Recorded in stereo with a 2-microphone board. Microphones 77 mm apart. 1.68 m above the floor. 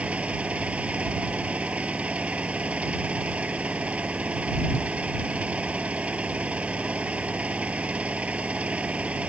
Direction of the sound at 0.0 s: 15° right (ahead or behind).